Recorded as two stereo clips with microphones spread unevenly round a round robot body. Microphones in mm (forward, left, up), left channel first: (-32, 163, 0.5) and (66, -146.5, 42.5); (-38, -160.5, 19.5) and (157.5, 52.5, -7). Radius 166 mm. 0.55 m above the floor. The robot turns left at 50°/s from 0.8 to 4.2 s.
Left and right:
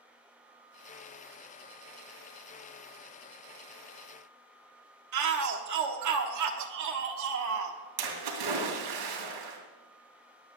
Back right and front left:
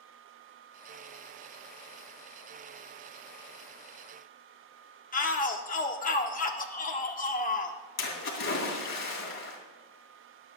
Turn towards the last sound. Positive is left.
turn(degrees=-80)